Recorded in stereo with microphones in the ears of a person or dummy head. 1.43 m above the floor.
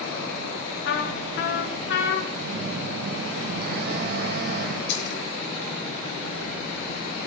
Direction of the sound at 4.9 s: 65° left (ahead or behind).